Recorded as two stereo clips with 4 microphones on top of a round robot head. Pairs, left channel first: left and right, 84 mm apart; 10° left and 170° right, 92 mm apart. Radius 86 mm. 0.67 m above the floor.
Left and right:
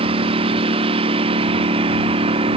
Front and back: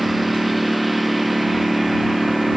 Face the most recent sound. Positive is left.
turn(degrees=-85)